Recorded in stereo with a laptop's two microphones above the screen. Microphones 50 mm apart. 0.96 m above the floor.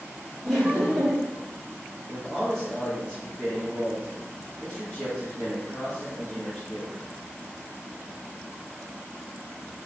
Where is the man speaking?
15° left (ahead or behind), 1.7 m.